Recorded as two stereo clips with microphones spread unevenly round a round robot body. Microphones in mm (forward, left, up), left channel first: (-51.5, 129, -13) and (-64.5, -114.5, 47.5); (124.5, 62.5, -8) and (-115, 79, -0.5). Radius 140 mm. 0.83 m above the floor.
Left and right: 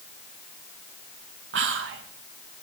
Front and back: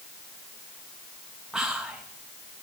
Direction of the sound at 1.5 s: 95° right.